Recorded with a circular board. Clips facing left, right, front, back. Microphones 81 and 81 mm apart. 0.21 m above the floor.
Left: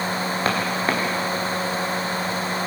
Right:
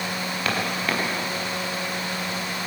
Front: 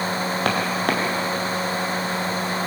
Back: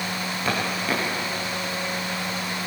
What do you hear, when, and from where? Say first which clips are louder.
0.5 s footsteps: left 2 dB, front 2 dB; 30° left, 5.5 m